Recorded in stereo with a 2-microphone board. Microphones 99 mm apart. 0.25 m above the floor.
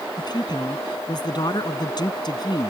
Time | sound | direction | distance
0.2 | a man speaking | 50° left (ahead or behind) | ?